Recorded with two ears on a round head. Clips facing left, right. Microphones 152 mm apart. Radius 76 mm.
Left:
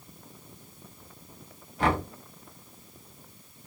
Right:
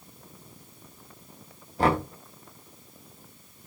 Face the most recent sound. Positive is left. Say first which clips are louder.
# right 3 dB
turn(degrees=-30)  # may be behind; listen again after turning